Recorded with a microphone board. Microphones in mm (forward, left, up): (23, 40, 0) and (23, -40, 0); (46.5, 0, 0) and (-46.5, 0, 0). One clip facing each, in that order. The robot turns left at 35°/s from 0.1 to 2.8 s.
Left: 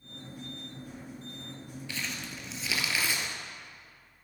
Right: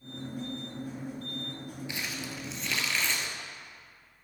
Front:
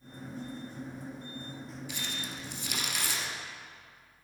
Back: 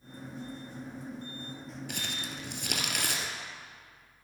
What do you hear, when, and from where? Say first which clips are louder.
1.9 s crumpling: left 1 dB, back 1 dB; 160° right, 1.3 m; by 3.3 s 170° left, 1.3 m